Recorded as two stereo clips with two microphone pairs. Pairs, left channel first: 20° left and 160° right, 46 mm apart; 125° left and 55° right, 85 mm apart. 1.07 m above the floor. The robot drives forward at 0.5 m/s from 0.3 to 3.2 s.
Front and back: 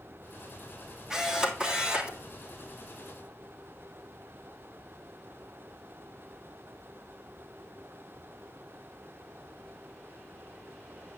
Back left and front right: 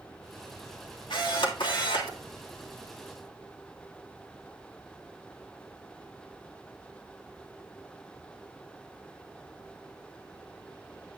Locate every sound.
1.1 s a camera shutter: 120° left, 2.5 m; by 2.2 s 130° left, 3 m